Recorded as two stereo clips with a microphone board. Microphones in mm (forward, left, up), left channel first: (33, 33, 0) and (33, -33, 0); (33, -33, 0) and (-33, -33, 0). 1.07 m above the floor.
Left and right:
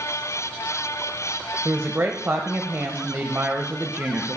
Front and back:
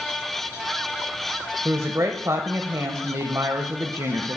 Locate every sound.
1.6 s a woman speaking: 145° right, 0.6 m